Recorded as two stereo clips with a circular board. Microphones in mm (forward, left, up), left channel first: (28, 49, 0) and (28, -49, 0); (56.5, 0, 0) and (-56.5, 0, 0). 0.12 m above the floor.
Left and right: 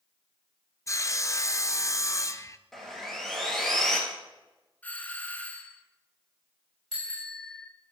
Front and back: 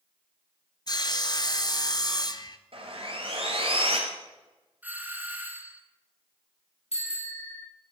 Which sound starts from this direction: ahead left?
Sawing, at 0.9 s.